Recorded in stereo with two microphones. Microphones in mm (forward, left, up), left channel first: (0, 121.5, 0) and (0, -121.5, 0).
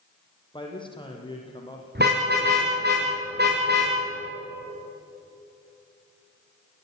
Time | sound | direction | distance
0.5 | a man speaking | 20° left (ahead or behind) | 5.5 m
1.9 | a car horn | 45° right (ahead or behind) | 7.5 m